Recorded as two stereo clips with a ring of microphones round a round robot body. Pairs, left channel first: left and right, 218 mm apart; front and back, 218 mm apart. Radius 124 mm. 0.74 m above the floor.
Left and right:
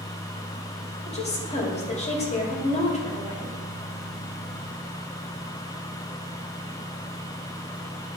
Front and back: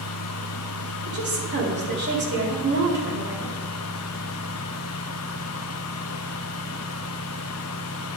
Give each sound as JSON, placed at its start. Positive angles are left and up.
{"t": 1.1, "sound": "a woman speaking", "azimuth_deg": 145, "distance_m": 2.0}